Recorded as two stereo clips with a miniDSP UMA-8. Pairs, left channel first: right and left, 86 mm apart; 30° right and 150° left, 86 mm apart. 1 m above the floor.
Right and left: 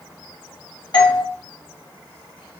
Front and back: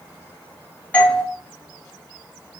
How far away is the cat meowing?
I don't hear a cat meowing.